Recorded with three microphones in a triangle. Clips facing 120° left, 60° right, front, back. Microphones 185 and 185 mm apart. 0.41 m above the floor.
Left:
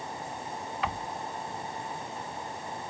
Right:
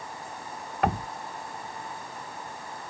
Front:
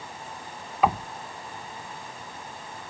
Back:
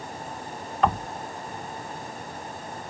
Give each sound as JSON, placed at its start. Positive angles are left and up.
{"t": 0.8, "sound": "knocking", "azimuth_deg": -80}